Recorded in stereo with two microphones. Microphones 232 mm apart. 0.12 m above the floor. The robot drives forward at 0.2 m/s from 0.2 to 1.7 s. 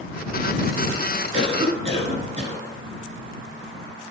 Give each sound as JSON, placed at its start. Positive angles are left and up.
{"t": 1.3, "sound": "a cough", "side_deg": -30, "distance_m": 1.6}